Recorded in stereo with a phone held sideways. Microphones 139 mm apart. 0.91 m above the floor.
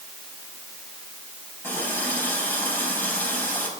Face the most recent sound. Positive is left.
turn(degrees=15)  # may be behind; listen again after turning